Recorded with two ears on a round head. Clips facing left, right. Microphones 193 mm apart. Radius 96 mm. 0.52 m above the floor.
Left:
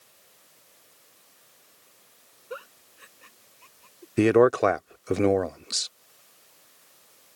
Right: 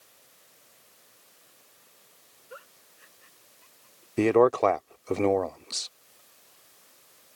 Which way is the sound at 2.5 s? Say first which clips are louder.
Left 9 dB; 70° left (ahead or behind).